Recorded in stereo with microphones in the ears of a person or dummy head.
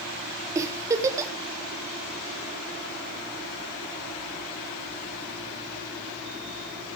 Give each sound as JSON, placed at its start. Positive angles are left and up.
{"t": 0.6, "sound": "a giggle", "side_deg": -15, "distance_m": 0.8}